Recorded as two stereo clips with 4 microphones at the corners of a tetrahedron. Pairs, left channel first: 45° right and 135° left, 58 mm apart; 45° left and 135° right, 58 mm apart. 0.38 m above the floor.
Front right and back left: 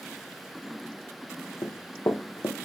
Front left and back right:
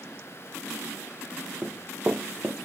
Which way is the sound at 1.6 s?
70° right.